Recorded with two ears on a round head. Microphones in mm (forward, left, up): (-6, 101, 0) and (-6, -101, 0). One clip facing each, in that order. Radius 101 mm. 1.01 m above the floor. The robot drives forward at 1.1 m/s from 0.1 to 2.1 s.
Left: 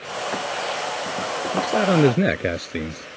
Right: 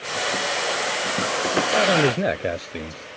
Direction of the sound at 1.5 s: 30° left (ahead or behind).